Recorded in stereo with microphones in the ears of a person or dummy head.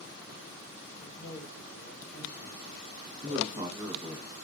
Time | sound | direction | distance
1.0 | a man speaking | 85° left | 2.5 m
3.2 | a man speaking | 25° right (ahead or behind) | 0.8 m